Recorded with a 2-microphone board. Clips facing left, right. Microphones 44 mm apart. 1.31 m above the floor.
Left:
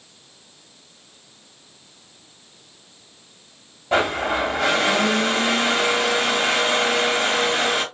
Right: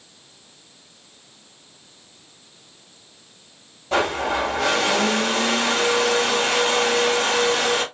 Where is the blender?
15° left (ahead or behind), 1.8 m.